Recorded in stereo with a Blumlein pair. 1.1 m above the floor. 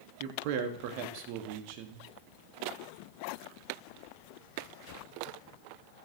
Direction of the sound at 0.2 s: 45° right.